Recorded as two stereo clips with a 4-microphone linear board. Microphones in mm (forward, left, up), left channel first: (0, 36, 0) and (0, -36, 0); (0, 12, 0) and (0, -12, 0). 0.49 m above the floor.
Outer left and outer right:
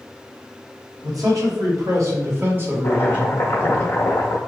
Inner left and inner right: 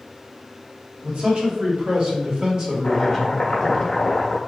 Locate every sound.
1.0 s a man speaking: 60° right (ahead or behind), 1.9 m; by 3.8 s 5° right (ahead or behind), 1.7 m
2.8 s chopping: 40° left (ahead or behind), 1.1 m